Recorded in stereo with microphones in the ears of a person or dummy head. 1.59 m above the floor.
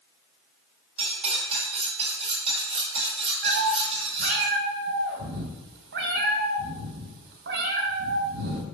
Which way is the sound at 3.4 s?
60° right (ahead or behind).